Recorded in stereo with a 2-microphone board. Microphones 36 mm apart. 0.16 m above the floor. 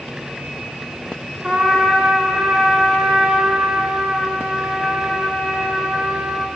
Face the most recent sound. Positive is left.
turn(degrees=-30)  # may be behind; listen again after turning